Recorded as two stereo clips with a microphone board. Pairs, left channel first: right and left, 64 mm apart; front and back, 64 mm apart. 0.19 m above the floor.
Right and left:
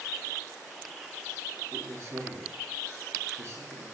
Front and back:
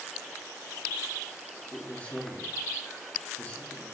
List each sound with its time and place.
1.7 s a man speaking: 65° left, 2.5 m